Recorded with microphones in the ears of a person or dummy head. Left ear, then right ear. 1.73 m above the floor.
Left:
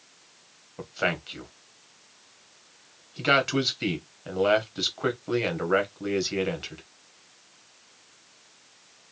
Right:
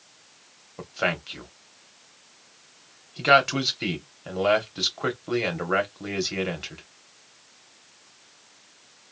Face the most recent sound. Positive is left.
turn(degrees=-5)  # may be behind; listen again after turning